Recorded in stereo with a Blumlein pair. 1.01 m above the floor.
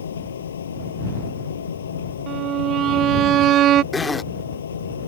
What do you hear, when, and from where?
0.0 s a machine running: 65° left
2.3 s a violin: 30° right
3.9 s a zipper: 10° left